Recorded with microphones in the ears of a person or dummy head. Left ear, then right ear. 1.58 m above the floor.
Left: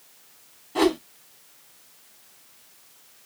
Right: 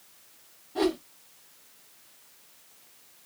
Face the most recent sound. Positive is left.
turn(degrees=30)  # may be behind; listen again after turning